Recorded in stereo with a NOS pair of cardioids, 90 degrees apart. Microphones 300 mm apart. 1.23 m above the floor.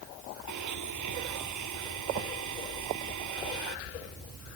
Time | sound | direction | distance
0.5 | a blender | 65° right | ?